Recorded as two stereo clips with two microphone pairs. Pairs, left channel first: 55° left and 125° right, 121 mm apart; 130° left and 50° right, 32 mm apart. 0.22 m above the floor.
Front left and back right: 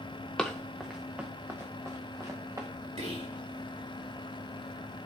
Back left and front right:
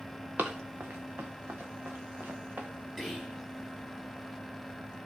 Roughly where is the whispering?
Behind right.